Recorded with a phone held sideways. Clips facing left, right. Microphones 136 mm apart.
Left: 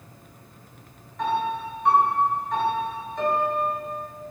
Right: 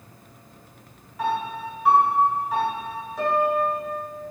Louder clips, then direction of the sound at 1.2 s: Left 1 dB; 5° right (ahead or behind).